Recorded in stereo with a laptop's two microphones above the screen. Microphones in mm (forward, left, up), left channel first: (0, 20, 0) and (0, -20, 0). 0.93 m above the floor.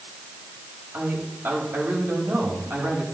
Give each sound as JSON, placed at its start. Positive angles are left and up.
{"t": 0.9, "sound": "a man speaking", "side_deg": -80, "distance_m": 6.0}